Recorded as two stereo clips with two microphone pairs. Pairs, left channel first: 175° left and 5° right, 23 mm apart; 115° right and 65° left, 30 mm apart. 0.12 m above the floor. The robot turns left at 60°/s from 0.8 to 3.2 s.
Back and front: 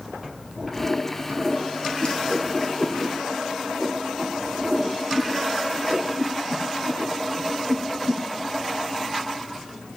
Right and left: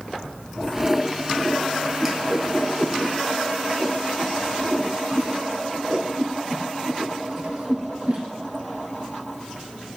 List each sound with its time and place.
2.0 s a whoosh: 145° left, 1.4 m; by 8.2 s 75° left, 1.4 m